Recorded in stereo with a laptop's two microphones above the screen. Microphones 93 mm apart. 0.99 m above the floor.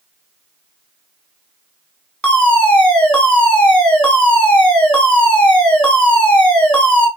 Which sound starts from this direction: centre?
A fire alarm, at 2.2 s.